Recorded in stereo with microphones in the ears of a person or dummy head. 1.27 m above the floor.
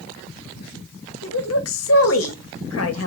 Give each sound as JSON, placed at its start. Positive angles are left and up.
{"t": 1.2, "sound": "a woman speaking", "side_deg": 80, "distance_m": 2.0}